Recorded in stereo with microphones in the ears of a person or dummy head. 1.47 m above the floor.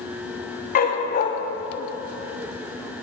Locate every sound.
0.8 s a dog barking: 40° left (ahead or behind), 1.1 m